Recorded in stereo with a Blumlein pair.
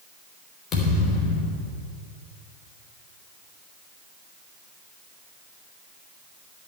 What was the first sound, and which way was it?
A thud, 30° left.